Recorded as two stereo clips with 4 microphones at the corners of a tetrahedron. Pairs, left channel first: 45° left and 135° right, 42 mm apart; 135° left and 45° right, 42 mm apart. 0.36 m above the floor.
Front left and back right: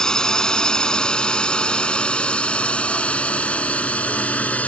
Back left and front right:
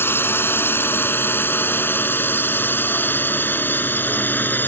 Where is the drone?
120° left; by 4.7 s 100° left.